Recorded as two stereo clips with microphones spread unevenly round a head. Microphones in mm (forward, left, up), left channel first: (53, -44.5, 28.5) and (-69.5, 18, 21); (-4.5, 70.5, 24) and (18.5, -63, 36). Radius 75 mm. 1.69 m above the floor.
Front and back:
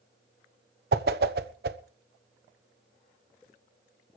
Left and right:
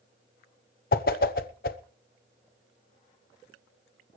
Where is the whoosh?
130° left, 0.9 m.